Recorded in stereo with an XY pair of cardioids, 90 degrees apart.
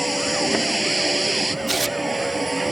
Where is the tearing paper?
25° right.